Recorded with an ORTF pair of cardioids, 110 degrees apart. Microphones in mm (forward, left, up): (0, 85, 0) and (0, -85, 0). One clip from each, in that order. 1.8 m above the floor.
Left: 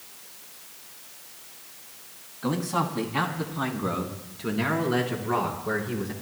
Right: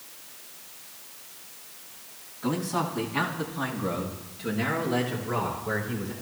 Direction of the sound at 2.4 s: 20° left.